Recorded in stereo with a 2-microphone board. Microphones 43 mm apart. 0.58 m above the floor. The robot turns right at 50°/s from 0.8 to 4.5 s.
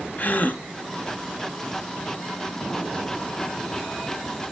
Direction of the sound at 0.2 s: 45° left (ahead or behind).